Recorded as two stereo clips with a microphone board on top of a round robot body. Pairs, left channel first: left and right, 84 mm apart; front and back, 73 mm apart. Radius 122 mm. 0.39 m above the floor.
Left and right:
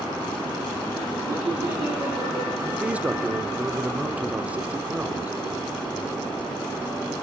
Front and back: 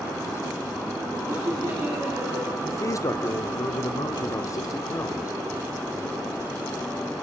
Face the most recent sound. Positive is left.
turn(degrees=-20)